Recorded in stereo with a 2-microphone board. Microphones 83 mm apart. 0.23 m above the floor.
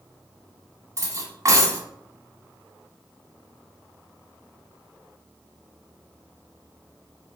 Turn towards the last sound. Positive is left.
turn(degrees=-40)  # may be behind; listen again after turning